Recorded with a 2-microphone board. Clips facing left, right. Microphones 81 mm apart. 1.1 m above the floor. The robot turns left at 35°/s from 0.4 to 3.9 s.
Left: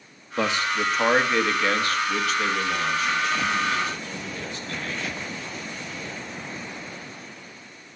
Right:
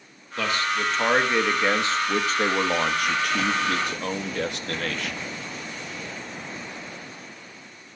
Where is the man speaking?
25° left, 1.2 m; by 5.2 s 95° right, 1.2 m.